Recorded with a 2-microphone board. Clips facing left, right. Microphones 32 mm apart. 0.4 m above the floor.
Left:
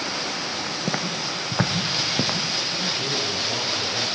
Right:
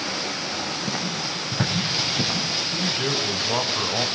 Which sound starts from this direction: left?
Footsteps, at 0.9 s.